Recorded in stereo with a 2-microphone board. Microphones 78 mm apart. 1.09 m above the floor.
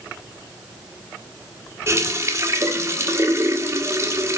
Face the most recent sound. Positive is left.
turn(degrees=-40)  # may be behind; listen again after turning